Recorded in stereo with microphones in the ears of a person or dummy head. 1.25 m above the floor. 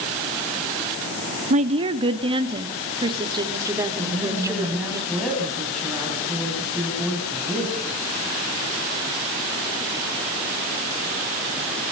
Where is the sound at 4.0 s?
Centre (ahead or behind), 8 m.